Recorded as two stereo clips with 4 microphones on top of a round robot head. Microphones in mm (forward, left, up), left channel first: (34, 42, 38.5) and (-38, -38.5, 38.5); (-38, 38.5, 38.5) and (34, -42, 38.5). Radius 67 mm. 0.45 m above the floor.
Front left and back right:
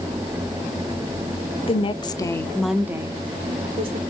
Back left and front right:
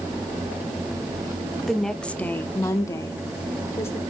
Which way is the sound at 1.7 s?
45° left.